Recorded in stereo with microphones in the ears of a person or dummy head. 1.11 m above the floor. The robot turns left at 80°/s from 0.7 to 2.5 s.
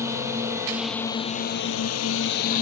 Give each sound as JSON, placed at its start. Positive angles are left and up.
{"t": 0.0, "sound": "a drone", "azimuth_deg": -170}